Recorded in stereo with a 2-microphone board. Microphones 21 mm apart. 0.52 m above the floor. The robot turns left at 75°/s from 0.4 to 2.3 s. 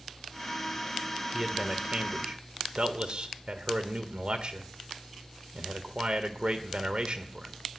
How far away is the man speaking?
About 1.6 m.